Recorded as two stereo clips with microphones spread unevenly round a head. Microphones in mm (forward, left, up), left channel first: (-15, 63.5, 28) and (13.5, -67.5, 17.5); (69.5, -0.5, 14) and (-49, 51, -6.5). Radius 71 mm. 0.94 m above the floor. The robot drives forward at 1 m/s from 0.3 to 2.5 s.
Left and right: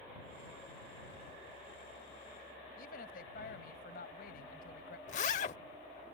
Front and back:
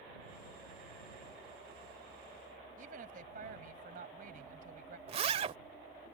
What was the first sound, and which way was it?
A woman speaking, 130° left.